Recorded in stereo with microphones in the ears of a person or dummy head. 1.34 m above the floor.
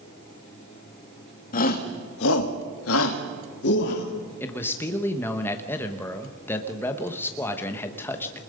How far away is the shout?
About 1.9 m.